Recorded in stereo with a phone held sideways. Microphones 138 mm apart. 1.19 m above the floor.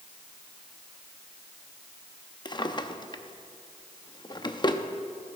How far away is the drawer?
About 0.6 m.